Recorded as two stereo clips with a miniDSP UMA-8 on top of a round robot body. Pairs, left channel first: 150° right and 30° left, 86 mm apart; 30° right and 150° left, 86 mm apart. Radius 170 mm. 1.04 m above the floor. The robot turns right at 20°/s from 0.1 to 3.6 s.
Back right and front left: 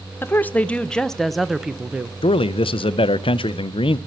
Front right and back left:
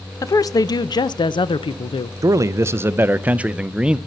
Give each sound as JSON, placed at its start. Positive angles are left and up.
{"t": 0.2, "sound": "a woman speaking", "azimuth_deg": -85, "distance_m": 0.5}
{"t": 2.2, "sound": "a man speaking", "azimuth_deg": -160, "distance_m": 0.5}